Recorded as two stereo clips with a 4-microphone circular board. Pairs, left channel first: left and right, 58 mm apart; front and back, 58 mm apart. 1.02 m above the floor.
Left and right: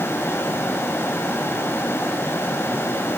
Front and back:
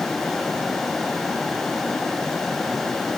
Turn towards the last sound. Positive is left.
No sound to turn to.